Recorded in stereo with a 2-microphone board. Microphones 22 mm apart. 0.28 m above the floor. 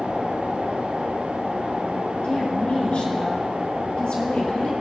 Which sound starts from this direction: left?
A woman speaking, at 2.2 s.